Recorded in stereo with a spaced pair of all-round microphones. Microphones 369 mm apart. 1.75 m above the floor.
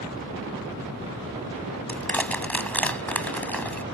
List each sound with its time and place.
1.9 s crushing: 5° left (ahead or behind)